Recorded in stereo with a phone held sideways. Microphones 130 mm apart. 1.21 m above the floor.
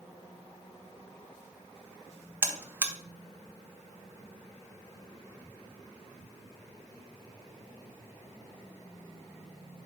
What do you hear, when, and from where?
2.4 s a buzzer: 20° right (ahead or behind), 0.9 m